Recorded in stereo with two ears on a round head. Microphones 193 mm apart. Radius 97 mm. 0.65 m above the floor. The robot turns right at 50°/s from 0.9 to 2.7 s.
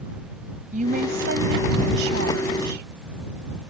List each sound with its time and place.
0.7 s a woman speaking: 140° right; by 2.9 s 50° right